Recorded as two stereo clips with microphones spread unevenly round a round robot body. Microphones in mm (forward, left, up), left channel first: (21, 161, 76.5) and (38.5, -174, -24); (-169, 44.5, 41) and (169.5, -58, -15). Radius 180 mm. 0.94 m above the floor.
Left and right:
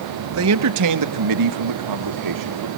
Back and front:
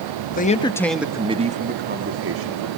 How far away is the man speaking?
About 1.1 m.